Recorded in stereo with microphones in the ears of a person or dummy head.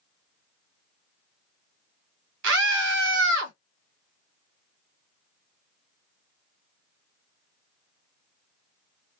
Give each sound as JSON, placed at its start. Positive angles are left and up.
{"t": 2.4, "sound": "a scream", "side_deg": -75, "distance_m": 1.6}